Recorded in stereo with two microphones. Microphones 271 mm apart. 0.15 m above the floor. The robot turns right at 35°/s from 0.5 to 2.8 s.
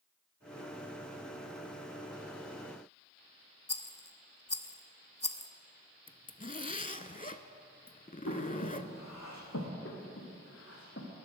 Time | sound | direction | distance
3.7 | a rattle | 25° left (ahead or behind) | 0.7 m
6.1 | a zipper | 30° left (ahead or behind) | 0.6 m
8.3 | breathing | 80° left | 3.5 m
9.8 | breathing | 50° left (ahead or behind) | 3 m